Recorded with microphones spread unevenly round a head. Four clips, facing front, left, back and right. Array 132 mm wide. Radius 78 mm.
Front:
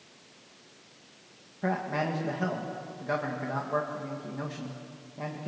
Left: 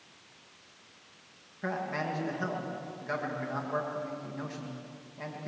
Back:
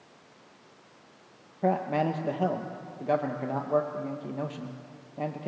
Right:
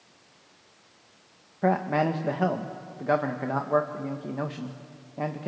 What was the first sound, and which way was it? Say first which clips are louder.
A man speaking: right 10 dB, back 4 dB; 130° right.